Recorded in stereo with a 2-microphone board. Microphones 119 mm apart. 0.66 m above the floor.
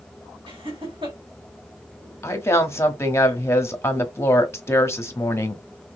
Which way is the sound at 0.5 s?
45° right (ahead or behind).